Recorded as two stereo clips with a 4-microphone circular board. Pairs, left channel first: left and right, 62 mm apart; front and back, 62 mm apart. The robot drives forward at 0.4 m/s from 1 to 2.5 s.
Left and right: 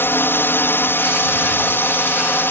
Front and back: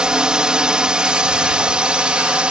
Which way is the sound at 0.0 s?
110° left.